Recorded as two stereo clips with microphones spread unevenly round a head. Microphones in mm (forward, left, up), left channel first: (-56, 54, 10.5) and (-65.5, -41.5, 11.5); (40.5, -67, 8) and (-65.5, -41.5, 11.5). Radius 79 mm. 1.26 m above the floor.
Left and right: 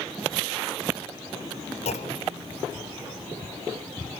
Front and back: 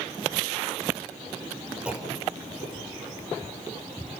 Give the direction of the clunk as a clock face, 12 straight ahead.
9 o'clock.